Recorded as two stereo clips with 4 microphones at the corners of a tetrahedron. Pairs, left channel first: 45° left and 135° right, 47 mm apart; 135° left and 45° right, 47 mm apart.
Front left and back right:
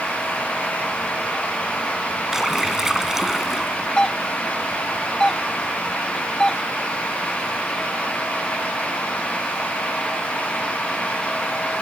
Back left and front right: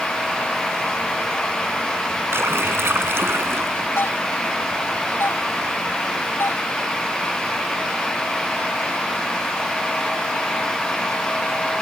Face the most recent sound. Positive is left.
turn(degrees=120)